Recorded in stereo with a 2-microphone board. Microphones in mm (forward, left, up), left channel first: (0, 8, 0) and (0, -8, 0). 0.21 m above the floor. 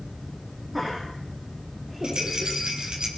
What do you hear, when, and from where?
0.7 s laughter: 15° right (ahead or behind), 9.5 m; by 2.5 s 25° right (ahead or behind), 9 m
2.0 s a rattle: 70° right (ahead or behind), 4.5 m